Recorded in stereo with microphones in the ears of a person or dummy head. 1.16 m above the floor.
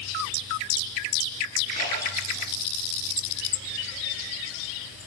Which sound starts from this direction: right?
A splash, at 1.7 s.